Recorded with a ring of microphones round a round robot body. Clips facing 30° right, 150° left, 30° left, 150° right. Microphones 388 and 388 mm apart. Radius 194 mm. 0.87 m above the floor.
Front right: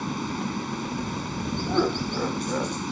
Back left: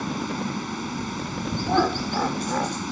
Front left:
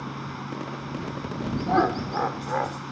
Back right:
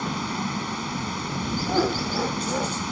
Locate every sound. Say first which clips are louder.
0.0 s running water: back left 1 dB, back right 7 dB; 125° right
1.7 s laughter: even, even; 85° left